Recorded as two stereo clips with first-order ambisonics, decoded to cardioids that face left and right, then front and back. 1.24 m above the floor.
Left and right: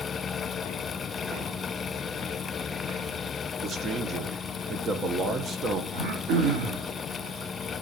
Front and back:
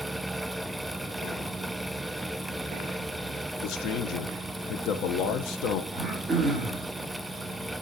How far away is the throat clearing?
About 2.5 m.